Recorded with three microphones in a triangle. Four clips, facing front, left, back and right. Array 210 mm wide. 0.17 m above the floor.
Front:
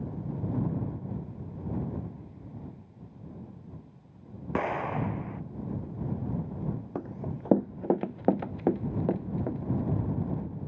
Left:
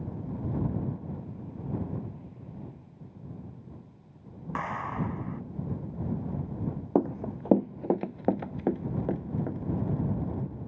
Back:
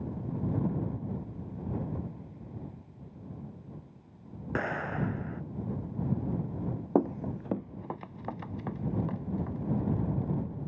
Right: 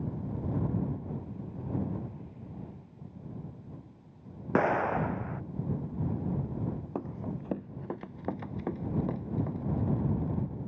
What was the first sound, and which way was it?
An explosion, 75° right.